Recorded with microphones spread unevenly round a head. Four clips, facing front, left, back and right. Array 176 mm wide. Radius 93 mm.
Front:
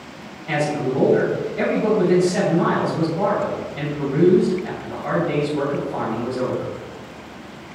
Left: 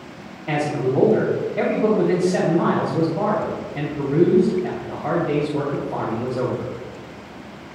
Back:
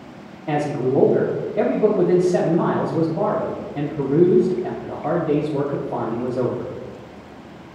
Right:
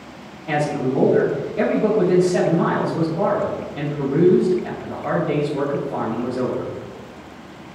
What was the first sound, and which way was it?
A man speaking, 165° left.